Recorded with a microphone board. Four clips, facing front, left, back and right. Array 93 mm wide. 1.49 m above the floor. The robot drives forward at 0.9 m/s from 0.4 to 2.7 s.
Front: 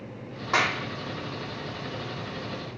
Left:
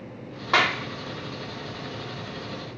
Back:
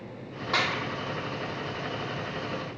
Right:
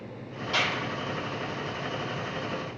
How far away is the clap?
About 2.5 m.